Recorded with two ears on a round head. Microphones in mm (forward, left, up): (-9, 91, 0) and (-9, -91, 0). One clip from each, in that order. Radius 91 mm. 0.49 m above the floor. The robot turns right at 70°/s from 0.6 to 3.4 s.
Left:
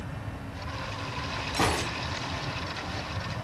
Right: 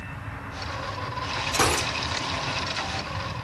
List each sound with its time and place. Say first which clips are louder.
1.5 s a gunshot: right 4 dB; 60° right (ahead or behind), 4 m; by 1.9 s 35° right (ahead or behind), 4 m